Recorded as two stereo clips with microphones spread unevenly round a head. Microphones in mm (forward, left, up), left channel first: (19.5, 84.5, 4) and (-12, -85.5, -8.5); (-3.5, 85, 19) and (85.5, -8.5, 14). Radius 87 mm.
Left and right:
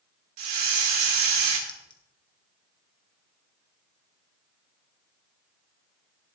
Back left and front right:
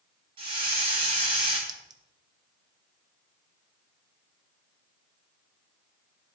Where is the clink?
15° left, 1.1 m.